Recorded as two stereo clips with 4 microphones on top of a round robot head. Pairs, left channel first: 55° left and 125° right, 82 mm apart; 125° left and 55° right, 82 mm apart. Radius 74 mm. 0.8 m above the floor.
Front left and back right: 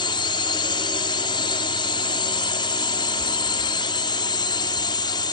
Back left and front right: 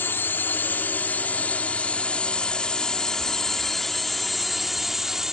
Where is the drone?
65° left; by 5.3 s 30° left.